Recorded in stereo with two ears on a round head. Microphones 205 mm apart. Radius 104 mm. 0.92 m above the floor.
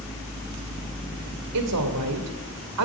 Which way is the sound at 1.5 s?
85° right.